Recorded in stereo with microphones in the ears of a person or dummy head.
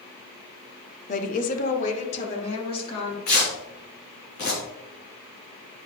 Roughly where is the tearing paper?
Left.